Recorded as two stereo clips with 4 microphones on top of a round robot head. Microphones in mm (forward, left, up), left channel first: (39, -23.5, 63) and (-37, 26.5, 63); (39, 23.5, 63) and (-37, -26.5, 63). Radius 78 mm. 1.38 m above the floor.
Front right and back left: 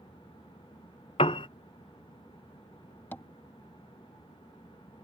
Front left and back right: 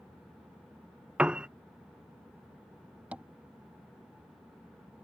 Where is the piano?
70° right.